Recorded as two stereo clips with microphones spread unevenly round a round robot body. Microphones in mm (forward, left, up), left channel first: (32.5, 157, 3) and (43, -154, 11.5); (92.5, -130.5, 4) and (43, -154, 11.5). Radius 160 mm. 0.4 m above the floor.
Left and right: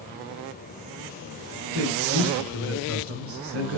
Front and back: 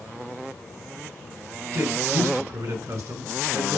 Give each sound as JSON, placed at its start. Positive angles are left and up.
{"t": 1.7, "sound": "a man speaking", "azimuth_deg": -135, "distance_m": 5.0}